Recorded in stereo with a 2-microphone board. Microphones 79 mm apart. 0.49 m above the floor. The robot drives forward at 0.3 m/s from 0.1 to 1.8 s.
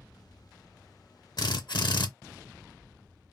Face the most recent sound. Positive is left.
turn(degrees=75)  # may be behind; listen again after turning